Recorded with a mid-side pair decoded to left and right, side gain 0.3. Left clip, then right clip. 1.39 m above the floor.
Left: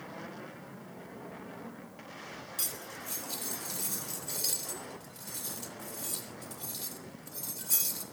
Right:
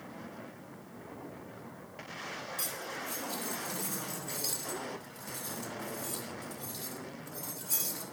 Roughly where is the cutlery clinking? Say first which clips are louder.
Left 1 dB; ahead left.